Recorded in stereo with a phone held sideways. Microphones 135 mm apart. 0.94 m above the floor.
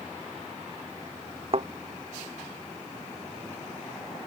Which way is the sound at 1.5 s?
50° right (ahead or behind).